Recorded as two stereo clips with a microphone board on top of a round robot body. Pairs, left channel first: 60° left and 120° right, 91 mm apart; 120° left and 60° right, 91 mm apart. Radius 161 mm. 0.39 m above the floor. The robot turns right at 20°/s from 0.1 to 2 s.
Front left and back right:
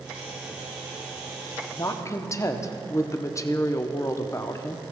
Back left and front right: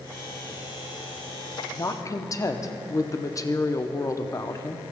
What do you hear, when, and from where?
1.7 s a woman speaking: 90° left, 0.9 m; by 4.8 s 95° left, 0.9 m